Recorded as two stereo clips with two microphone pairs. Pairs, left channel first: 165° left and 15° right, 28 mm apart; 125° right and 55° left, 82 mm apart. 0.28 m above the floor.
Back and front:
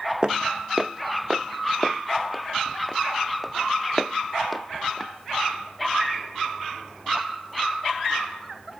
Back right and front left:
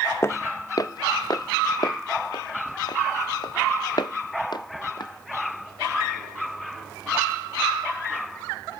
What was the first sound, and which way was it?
Footsteps, 70° right.